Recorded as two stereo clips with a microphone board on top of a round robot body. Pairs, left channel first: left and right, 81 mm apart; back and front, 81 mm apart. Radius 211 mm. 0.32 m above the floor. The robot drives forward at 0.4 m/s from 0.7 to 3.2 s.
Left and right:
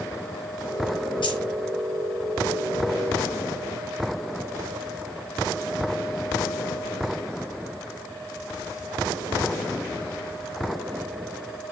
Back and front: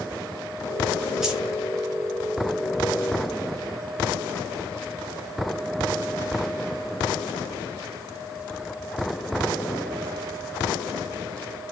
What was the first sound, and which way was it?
Keys jangling, 85° left.